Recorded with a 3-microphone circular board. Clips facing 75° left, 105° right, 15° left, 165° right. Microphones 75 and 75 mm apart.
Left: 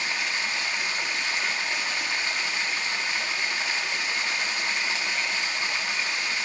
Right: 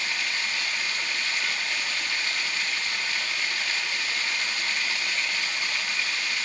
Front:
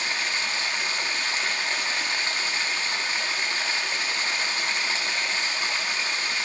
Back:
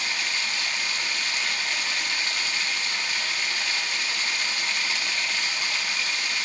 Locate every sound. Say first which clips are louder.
0.0 s running water: left 1 dB, front 1 dB; 30° left, 0.9 m